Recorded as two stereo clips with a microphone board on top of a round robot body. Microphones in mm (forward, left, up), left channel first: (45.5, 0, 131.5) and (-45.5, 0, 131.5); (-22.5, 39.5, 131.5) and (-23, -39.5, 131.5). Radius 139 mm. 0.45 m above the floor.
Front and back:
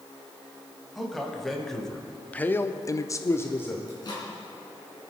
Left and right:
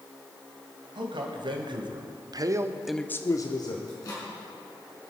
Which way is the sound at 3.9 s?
45° left.